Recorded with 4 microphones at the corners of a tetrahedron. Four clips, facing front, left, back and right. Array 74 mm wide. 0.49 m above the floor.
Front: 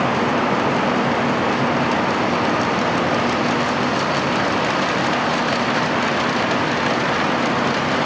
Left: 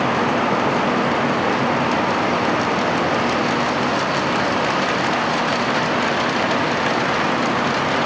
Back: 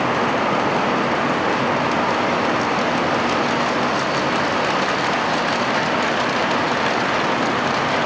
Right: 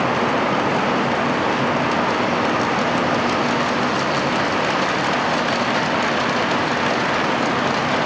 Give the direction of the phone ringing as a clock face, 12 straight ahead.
No phone ringing in this recording.